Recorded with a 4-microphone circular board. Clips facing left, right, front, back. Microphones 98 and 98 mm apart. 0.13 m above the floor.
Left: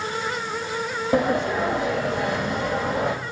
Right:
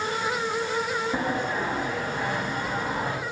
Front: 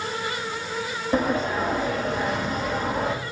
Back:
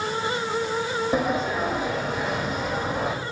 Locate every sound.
1.1 s a sliding door: 95° left, 1.9 m